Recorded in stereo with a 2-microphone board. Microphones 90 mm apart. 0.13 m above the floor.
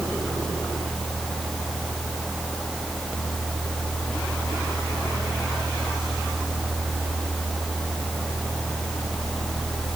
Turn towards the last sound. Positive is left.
No sound to turn to.